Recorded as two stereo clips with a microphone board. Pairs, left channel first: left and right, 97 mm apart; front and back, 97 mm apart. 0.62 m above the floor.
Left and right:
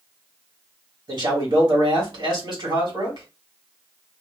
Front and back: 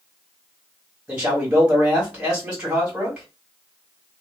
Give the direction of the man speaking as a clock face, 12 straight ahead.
3 o'clock.